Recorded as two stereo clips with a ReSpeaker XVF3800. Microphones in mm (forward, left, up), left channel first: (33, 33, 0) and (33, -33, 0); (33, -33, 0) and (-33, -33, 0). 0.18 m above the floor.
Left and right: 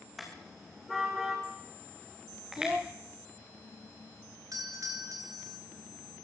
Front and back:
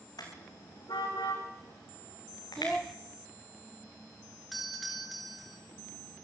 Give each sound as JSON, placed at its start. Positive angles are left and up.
{"t": 0.2, "sound": "a car horn", "azimuth_deg": 0, "distance_m": 5.0}
{"t": 2.6, "sound": "a child speaking", "azimuth_deg": -80, "distance_m": 0.7}
{"t": 4.5, "sound": "a doorbell", "azimuth_deg": -90, "distance_m": 4.0}